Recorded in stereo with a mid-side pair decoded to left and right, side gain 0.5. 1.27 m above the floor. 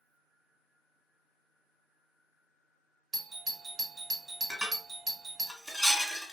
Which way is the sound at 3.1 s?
35° right.